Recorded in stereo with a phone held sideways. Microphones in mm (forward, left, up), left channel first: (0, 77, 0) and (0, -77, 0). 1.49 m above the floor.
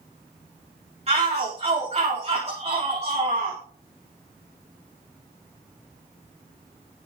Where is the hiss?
I don't hear a hiss.